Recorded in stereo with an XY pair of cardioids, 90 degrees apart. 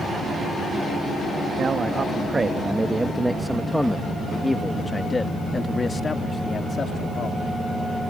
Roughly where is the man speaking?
Ahead right.